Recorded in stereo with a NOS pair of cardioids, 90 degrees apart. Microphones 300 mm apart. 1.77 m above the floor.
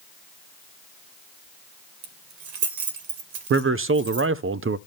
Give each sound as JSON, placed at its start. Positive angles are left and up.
{"t": 2.0, "sound": "keys jangling", "azimuth_deg": -70, "distance_m": 2.5}
{"t": 3.5, "sound": "a man speaking", "azimuth_deg": -45, "distance_m": 0.5}